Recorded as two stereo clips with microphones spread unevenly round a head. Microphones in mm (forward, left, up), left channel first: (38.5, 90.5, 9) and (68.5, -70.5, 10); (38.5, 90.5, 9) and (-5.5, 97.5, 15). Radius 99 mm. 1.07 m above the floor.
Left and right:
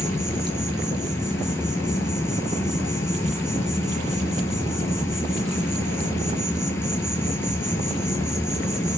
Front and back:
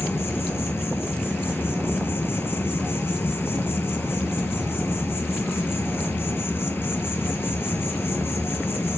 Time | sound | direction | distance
0.0 | an insect | 25° left | 3.5 m